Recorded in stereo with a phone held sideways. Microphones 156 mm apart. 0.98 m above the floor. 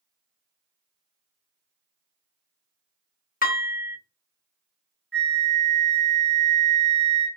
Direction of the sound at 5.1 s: 5° left (ahead or behind).